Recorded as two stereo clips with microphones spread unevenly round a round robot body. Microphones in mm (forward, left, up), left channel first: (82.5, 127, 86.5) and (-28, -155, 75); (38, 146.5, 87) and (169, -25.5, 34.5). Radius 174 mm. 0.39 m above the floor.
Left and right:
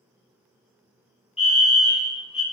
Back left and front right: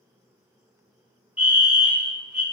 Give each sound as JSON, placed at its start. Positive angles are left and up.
{"t": 1.4, "sound": "a fire alarm", "azimuth_deg": 5, "distance_m": 2.5}